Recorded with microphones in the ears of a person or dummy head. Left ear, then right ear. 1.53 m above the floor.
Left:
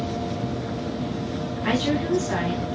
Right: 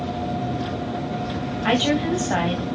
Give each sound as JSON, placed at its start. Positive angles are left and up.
{"t": 1.6, "sound": "a woman speaking", "side_deg": -25, "distance_m": 1.5}